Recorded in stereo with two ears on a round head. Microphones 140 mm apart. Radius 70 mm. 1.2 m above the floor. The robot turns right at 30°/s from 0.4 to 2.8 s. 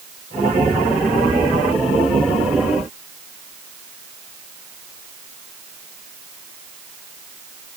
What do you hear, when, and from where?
Only background noise.